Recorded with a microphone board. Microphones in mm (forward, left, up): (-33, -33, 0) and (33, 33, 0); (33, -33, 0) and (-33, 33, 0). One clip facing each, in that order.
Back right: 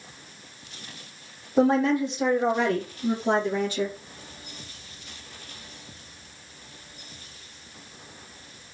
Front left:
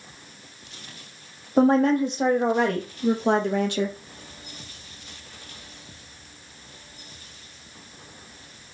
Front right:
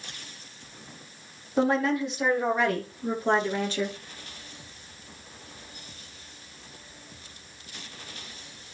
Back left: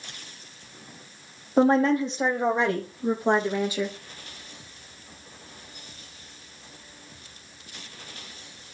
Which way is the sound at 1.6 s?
85° left.